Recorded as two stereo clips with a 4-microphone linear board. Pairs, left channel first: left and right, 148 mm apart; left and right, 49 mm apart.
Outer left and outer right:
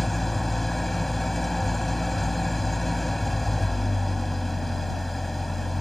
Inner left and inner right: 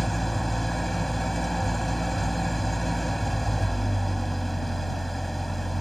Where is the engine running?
Centre (ahead or behind).